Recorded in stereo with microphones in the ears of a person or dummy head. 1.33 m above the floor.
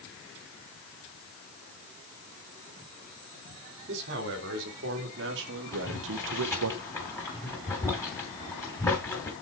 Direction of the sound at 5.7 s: 15° left (ahead or behind).